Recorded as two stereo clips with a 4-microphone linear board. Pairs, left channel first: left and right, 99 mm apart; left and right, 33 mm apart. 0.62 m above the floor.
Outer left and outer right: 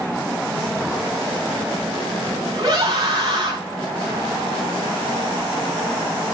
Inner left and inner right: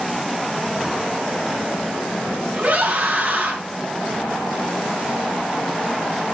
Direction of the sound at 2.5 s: 40° right (ahead or behind).